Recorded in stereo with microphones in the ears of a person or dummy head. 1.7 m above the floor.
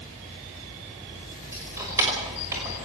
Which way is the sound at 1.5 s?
15° right (ahead or behind).